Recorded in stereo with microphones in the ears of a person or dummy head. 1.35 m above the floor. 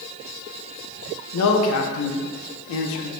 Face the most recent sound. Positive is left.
turn(degrees=80)